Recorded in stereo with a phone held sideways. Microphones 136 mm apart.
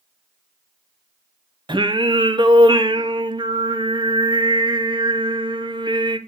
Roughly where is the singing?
Right.